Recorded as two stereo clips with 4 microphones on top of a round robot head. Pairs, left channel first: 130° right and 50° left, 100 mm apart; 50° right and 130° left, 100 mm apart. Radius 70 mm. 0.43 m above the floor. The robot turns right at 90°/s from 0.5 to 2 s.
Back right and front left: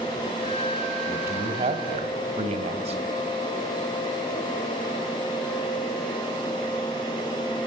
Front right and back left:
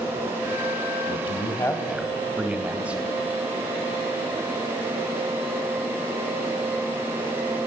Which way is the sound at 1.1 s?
30° right.